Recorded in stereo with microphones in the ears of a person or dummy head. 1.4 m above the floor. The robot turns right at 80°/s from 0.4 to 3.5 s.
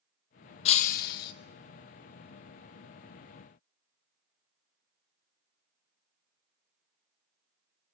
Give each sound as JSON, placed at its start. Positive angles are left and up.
{"t": 0.7, "sound": "breaking glass", "azimuth_deg": 45, "distance_m": 0.9}